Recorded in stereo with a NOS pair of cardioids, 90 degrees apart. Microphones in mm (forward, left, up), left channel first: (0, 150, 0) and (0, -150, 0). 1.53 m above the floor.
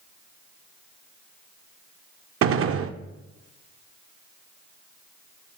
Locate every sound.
2.4 s a gunshot: 45° right, 0.7 m